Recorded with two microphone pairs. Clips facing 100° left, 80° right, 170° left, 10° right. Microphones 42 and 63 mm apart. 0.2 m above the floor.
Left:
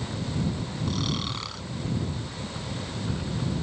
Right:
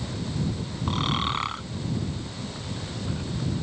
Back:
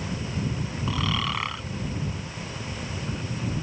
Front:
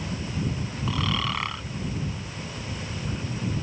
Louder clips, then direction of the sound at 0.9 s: Right 6 dB, even; 100° right.